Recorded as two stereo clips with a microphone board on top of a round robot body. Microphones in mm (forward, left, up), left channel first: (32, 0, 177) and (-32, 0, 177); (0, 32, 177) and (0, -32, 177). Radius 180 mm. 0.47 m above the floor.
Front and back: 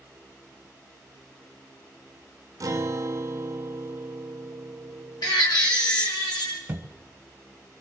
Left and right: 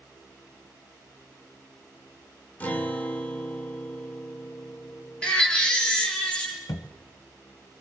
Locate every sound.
2.6 s a guitar: 155° left, 1.5 m
5.2 s a baby crying: 15° left, 2.5 m
6.7 s a thud: 125° left, 0.6 m